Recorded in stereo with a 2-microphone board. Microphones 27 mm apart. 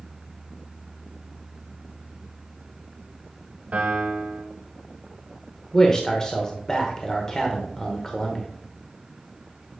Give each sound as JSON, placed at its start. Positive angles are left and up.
{"t": 3.7, "sound": "a piano", "side_deg": -55, "distance_m": 1.5}
{"t": 5.7, "sound": "a man speaking", "side_deg": 20, "distance_m": 0.9}